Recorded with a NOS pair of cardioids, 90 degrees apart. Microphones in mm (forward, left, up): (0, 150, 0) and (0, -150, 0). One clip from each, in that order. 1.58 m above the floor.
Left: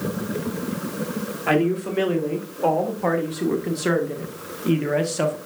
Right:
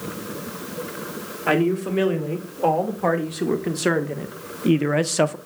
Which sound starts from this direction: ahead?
A man speaking, at 1.5 s.